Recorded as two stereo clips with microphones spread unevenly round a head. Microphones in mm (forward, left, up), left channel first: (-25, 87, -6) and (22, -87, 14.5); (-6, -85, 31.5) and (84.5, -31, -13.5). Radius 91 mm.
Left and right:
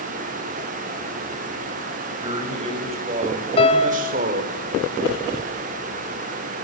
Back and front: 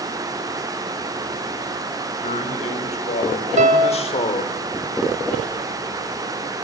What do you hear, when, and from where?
2.2 s a man speaking: 140° right, 5 m; by 4.5 s 115° right, 3 m
3.6 s a piano: 45° left, 1.6 m